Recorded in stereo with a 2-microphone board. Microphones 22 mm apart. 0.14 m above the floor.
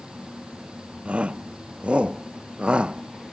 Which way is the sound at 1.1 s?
60° right (ahead or behind).